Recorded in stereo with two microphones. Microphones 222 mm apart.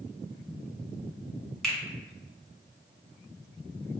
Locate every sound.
1.6 s a finger snap: 5° left (ahead or behind), 1.3 m